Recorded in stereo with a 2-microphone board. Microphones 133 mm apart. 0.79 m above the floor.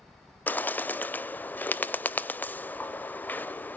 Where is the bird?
15° left (ahead or behind), 0.5 m.